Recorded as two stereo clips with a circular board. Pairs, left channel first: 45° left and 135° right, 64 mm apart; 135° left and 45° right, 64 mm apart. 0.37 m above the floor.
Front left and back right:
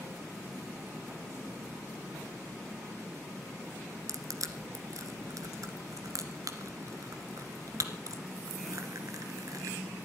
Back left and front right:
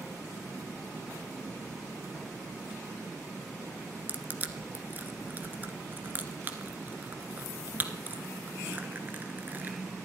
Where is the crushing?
105° right, 1.4 m.